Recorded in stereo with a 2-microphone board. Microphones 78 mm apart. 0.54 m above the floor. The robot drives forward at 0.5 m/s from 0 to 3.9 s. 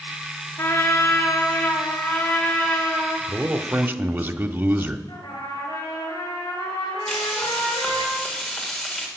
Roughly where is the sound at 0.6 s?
Left.